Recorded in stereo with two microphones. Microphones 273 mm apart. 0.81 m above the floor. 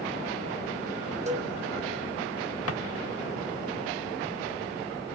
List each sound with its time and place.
1.3 s a cowbell: 25° right (ahead or behind), 0.9 m
2.7 s a drawer: 55° left (ahead or behind), 0.9 m